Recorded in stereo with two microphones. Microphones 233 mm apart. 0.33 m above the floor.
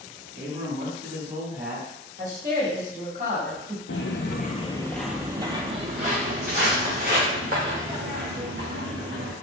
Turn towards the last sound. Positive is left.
turn(degrees=-50)  # may be behind; listen again after turning